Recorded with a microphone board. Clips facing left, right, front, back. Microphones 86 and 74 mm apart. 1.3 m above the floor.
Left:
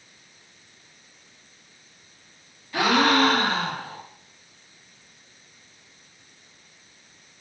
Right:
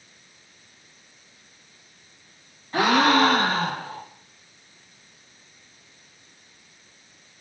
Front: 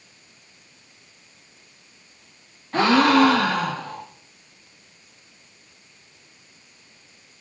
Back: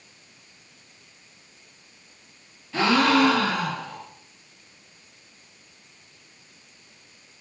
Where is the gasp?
40° right, 1.3 m.